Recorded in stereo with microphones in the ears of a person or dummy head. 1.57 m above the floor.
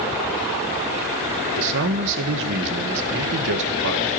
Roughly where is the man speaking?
Right.